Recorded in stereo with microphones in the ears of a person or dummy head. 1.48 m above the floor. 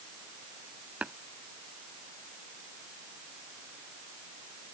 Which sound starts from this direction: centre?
Tapping, at 1.0 s.